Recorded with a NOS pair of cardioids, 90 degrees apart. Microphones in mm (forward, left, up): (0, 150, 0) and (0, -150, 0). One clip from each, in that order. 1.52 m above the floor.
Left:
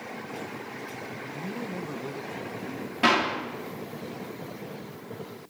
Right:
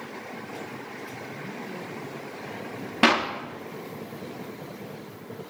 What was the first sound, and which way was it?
A man speaking, 35° left.